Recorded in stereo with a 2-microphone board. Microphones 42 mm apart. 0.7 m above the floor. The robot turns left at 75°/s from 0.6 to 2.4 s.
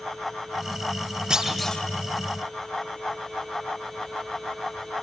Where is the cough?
No cough in this recording.